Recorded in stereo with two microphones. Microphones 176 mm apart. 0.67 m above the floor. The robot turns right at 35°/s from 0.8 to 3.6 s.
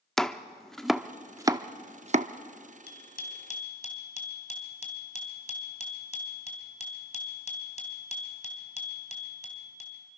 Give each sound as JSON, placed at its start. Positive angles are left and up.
{"t": 0.2, "sound": "chopping", "side_deg": 0, "distance_m": 0.6}
{"t": 2.9, "sound": "a bicycle bell", "side_deg": 65, "distance_m": 3.0}